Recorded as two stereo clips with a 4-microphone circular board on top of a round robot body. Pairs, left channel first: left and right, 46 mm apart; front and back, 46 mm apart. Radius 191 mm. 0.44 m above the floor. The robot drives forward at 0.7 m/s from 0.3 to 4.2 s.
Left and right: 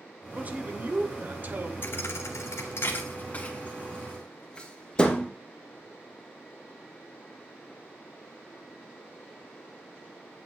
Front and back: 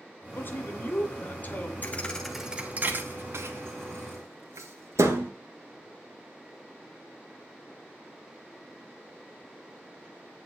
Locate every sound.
0.3 s a man speaking: 40° right, 3 m; by 1.7 s 55° right, 2.5 m
1.8 s a thud: 50° left, 0.6 m; by 5.3 s 160° left, 1.4 m